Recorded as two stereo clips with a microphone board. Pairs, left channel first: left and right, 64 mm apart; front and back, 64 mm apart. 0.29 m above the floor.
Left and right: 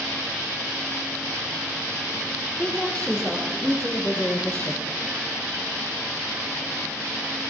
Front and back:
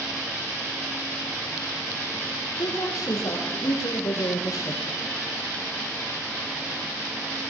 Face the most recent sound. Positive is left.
turn(degrees=25)